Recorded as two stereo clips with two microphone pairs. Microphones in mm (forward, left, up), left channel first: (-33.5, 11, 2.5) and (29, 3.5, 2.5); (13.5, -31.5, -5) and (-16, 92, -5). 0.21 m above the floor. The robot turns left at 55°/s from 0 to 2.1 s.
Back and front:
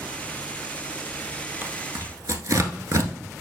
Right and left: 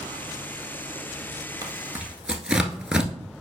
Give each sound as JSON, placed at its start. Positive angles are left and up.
{"t": 1.6, "sound": "tearing paper", "azimuth_deg": 50, "distance_m": 0.8}